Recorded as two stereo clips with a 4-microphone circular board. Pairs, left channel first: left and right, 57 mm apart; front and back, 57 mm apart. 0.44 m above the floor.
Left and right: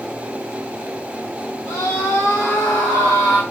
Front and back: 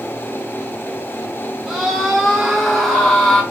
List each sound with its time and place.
1.7 s a scream: 105° left, 3 m; by 3.4 s 85° left, 2.5 m